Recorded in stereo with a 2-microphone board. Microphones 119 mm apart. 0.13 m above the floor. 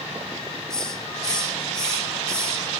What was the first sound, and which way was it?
A hiss, 5° left (ahead or behind).